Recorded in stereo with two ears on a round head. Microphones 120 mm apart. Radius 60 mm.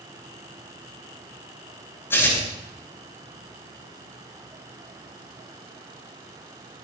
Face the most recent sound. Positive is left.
turn(degrees=20)  # may be behind; listen again after turning